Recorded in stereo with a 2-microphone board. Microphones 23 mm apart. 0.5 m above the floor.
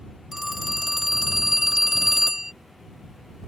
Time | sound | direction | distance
0.3 | a phone ringing | 15° right (ahead or behind) | ?